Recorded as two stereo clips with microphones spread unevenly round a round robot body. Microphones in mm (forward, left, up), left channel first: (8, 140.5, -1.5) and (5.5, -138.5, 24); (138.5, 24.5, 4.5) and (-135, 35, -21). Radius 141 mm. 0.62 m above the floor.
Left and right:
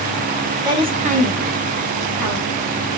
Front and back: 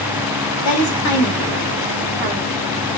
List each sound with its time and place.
0.7 s a woman speaking: 15° right, 1.1 m; by 2.6 s 120° right, 1.2 m